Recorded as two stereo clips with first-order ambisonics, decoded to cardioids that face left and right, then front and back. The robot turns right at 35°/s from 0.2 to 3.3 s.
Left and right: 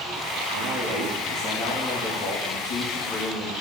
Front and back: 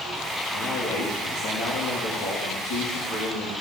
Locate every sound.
0.5 s a man speaking: 35° right, 3 m; by 3.5 s 65° left, 3 m